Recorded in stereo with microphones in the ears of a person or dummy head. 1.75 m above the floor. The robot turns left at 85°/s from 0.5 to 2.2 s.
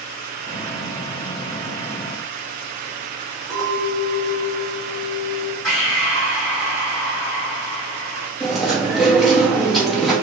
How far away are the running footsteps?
I don't hear running footsteps.